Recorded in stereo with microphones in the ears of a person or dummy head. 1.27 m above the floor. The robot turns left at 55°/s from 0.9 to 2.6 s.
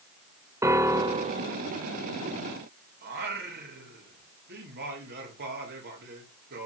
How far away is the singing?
About 2 m.